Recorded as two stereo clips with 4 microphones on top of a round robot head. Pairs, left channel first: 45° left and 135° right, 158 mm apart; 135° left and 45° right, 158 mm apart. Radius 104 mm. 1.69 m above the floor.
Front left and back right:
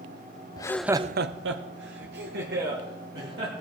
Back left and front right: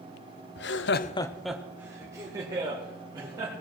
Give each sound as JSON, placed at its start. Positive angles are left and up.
{"t": 0.6, "sound": "laughter", "azimuth_deg": 110, "distance_m": 0.8}